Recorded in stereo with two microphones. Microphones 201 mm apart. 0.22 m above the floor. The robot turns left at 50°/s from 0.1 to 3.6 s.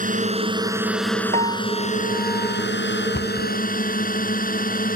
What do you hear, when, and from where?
0.0 s a drone: 130° right; by 5.0 s 55° left
1.3 s a piano: 140° right; by 2.7 s 150° left
3.1 s a cupboard door: 45° left (ahead or behind); by 3.5 s 55° left (ahead or behind)